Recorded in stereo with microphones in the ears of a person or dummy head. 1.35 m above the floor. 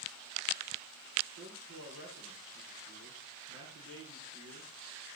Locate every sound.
1.4 s a man speaking: 80° right, 9 m